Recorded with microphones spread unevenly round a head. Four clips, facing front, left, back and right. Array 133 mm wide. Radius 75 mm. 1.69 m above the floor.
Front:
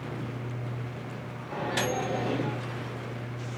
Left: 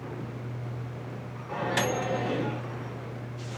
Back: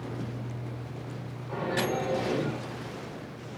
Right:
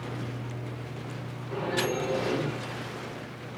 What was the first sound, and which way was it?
A microwave, 70° left.